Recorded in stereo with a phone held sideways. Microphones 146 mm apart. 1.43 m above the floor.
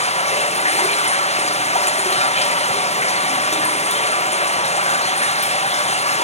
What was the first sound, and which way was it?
Running water, 50° left (ahead or behind).